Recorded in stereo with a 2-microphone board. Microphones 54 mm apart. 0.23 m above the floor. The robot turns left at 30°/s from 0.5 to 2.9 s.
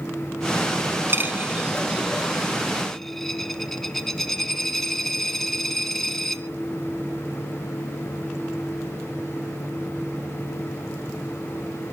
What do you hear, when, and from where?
1.1 s a dropped coin: 40° right (ahead or behind), 1.1 m; by 6.4 s 5° left (ahead or behind), 1.1 m